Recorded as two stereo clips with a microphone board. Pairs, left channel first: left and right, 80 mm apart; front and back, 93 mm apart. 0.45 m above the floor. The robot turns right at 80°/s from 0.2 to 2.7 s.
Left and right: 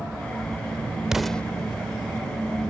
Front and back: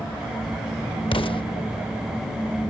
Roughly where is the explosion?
Ahead.